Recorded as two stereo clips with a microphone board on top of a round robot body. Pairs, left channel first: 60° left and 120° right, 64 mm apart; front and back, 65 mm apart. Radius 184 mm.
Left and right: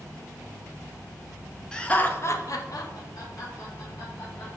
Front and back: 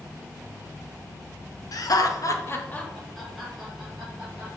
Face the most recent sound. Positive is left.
turn(degrees=100)